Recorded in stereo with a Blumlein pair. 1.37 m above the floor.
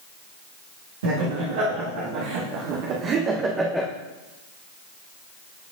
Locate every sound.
1.0 s laughter: 65° right, 1.8 m; by 3.9 s straight ahead, 0.8 m